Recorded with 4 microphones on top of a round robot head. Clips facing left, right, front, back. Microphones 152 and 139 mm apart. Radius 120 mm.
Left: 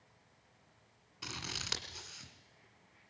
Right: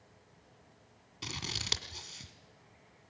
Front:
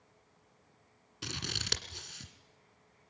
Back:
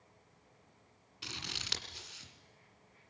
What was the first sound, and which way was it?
Scissors, 40° right.